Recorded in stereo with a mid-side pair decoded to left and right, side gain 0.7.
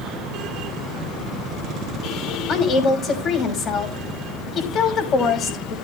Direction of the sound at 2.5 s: 45° left.